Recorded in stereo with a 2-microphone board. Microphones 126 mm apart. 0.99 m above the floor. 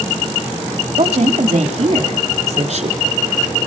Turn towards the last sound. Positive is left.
turn(degrees=-55)  # may be behind; listen again after turning